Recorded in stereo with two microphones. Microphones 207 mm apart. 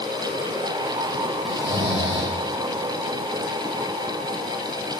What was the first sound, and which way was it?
Snoring, 75° right (ahead or behind).